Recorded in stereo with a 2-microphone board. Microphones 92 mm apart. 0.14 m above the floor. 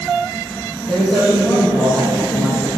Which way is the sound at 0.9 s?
25° left (ahead or behind).